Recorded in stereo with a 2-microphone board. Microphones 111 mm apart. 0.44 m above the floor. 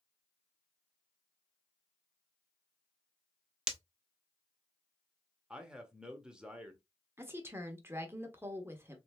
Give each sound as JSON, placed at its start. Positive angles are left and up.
{"t": 3.7, "sound": "breaking glass", "side_deg": -5, "distance_m": 0.8}
{"t": 5.5, "sound": "a man speaking", "side_deg": -5, "distance_m": 1.0}
{"t": 7.2, "sound": "a woman speaking", "side_deg": -20, "distance_m": 1.0}